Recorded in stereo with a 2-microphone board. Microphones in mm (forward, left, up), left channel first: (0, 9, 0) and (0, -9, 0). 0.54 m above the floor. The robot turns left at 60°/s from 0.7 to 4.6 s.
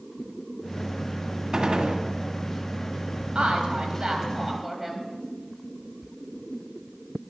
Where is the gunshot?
35° right (ahead or behind), 1.6 m; by 2.0 s 65° right (ahead or behind), 1.6 m.